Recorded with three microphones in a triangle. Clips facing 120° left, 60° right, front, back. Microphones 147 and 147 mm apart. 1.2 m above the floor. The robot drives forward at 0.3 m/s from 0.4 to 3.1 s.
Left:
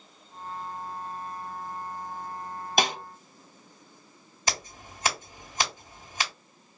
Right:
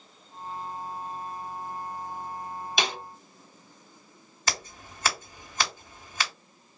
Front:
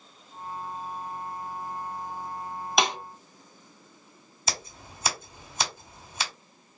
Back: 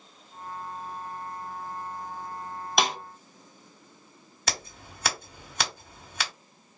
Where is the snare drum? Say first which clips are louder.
Left 4 dB, front 1 dB; 90° left, 0.7 m; by 3.0 s 95° left, 0.7 m.